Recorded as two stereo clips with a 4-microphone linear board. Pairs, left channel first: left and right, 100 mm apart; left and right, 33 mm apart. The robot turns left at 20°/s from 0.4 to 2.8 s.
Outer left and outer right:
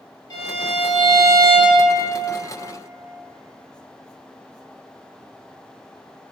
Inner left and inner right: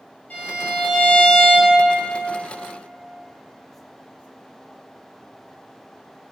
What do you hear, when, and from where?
0.3 s a violin: 40° left (ahead or behind), 0.7 m; by 1.8 s 15° left (ahead or behind), 0.7 m